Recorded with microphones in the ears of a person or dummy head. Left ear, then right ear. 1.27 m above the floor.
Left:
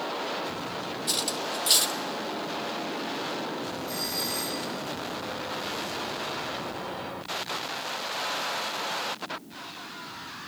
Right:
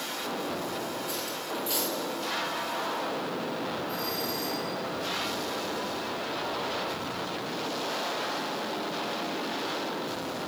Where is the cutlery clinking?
35° left (ahead or behind), 0.8 m.